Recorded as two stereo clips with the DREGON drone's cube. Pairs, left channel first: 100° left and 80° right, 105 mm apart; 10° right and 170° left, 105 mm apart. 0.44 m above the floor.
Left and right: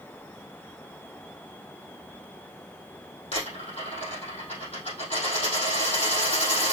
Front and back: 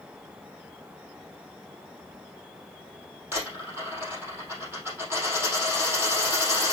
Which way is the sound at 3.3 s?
105° left.